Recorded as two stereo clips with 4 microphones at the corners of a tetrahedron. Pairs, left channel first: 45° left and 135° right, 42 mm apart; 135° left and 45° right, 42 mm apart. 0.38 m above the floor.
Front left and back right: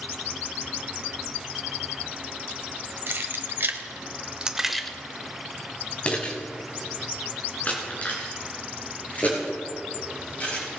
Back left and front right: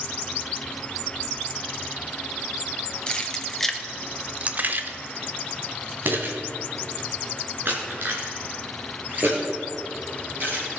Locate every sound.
3.1 s keys jangling: 160° right, 1.2 m; by 10.6 s 5° right, 5 m